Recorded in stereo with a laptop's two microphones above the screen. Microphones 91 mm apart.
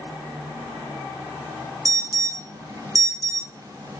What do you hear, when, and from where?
1.9 s an alarm: 40° right (ahead or behind), 1.0 m